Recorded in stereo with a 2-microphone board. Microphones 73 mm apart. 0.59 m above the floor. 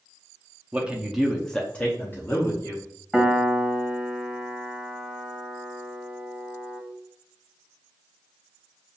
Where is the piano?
Centre (ahead or behind), 0.9 m.